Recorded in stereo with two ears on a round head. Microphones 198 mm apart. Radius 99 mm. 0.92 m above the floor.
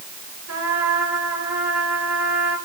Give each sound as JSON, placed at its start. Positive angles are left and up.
{"t": 0.5, "sound": "a trumpet", "side_deg": -80, "distance_m": 7.5}